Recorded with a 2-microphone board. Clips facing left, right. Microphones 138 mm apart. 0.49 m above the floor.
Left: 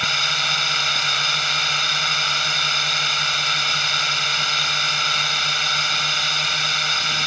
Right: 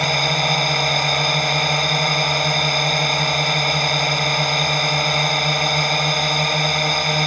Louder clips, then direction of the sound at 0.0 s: Right 9 dB; 50° right (ahead or behind).